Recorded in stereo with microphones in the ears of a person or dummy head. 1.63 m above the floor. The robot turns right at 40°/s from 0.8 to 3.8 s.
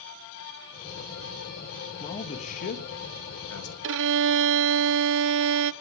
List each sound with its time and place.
2.0 s a man speaking: 30° left, 3 m; by 3.7 s 100° left, 3 m
3.8 s a violin: 65° right (ahead or behind), 0.6 m